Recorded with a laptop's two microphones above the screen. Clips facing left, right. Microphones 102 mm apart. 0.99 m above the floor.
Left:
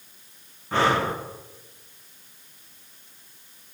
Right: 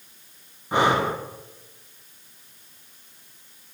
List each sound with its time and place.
0.7 s breathing: 15° right (ahead or behind), 0.6 m